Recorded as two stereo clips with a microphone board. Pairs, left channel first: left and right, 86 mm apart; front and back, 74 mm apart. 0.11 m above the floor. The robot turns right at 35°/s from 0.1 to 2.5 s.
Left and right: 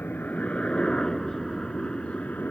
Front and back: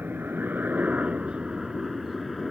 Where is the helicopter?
140° left; by 2.5 s 95° left.